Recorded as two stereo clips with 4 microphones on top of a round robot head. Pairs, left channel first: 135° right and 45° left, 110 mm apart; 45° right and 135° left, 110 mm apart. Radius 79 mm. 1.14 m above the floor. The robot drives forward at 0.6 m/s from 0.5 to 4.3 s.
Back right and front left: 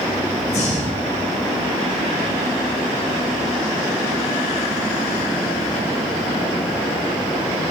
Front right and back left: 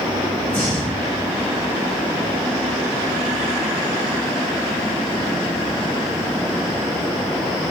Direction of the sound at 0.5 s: 130° right.